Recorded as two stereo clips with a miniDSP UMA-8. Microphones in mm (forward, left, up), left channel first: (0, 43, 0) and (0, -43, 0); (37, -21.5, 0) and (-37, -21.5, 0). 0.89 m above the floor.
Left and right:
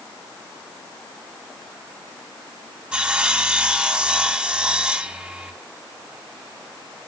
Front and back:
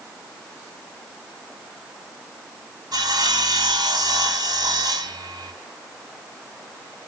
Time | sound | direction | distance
2.9 | sawing | 165° right | 1.6 m